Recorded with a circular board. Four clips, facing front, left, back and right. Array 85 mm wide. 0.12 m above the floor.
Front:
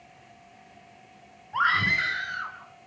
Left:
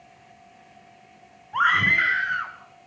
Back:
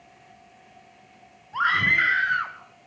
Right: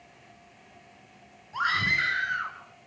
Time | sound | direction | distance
1.5 | a scream | 80° left | 1.2 m